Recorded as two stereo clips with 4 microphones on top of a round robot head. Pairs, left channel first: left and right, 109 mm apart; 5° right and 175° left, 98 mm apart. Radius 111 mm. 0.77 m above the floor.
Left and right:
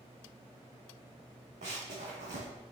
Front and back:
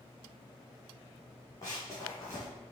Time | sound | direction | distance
1.6 | running footsteps | 70° right | 2.5 m